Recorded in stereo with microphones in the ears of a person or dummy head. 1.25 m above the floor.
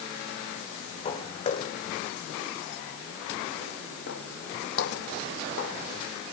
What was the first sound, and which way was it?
Footsteps, 35° left (ahead or behind).